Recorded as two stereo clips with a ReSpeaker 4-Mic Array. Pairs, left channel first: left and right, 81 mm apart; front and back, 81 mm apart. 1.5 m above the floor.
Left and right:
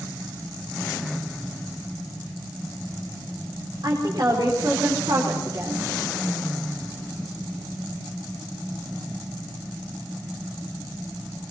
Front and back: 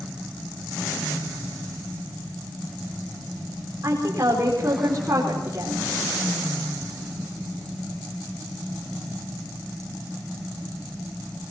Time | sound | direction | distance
3.8 | a woman speaking | 125° right | 4.5 m